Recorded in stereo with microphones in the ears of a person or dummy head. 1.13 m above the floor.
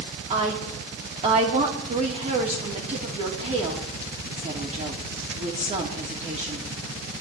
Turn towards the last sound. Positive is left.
turn(degrees=-35)  # may be behind; listen again after turning